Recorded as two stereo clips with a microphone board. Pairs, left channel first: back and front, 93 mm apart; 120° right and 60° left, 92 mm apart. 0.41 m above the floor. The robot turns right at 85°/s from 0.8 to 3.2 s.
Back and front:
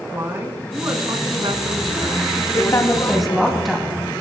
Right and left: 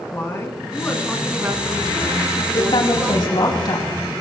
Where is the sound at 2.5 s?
145° right, 3 m; by 3.9 s 90° right, 3 m.